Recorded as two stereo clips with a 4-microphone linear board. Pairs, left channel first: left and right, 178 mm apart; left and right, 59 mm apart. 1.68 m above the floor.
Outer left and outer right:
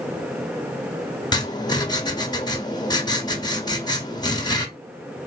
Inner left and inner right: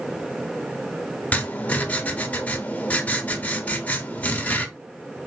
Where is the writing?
25° left (ahead or behind), 0.9 m.